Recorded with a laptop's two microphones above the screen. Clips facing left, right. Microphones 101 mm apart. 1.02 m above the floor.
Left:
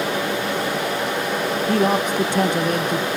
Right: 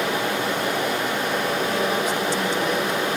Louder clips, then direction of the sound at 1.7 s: Left 4 dB; 55° left (ahead or behind).